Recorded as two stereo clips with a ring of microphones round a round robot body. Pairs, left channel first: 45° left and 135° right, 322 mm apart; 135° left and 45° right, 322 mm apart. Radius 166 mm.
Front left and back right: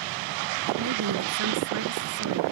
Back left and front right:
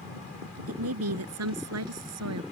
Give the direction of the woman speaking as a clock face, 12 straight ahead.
3 o'clock.